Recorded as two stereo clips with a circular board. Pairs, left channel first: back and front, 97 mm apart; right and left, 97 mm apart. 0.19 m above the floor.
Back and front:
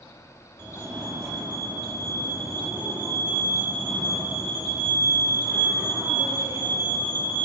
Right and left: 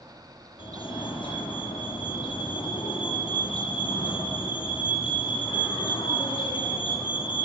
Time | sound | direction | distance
0.6 | a fire alarm | 55° right | 8 m